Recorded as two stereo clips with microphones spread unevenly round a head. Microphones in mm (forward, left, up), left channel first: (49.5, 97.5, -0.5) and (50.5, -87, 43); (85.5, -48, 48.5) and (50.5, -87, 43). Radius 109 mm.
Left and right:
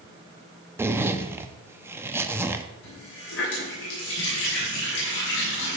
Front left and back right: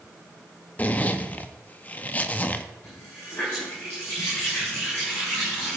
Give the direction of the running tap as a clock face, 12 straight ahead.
8 o'clock.